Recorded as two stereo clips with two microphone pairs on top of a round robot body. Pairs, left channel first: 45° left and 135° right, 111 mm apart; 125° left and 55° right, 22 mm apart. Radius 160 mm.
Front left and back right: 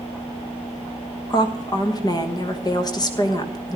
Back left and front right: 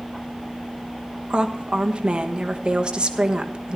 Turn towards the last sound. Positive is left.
turn(degrees=-10)